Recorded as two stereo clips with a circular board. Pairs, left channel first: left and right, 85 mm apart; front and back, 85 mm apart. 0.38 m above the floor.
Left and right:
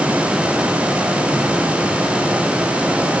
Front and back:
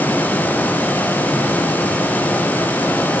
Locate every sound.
Only background noise.